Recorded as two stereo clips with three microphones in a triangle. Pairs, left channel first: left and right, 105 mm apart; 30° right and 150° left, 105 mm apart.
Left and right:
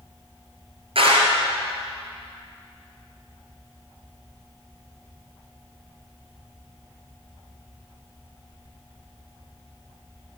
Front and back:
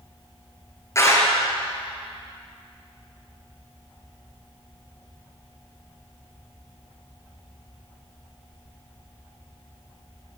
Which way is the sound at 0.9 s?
90° right.